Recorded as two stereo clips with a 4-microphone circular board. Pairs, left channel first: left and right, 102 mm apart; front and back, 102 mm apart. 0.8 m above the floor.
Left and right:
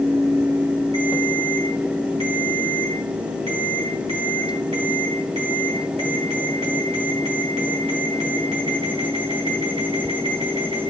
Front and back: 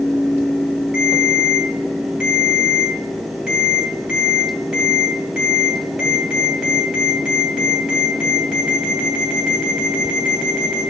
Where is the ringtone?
90° right, 3 m.